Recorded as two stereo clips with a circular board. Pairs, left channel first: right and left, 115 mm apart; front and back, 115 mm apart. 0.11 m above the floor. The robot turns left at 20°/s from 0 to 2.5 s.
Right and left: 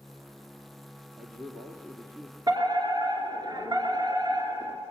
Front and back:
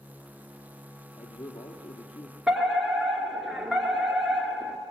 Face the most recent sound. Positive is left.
turn(degrees=95)